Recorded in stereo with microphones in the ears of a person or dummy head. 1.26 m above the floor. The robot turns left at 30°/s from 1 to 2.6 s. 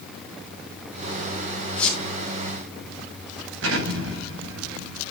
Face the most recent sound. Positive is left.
turn(degrees=-80)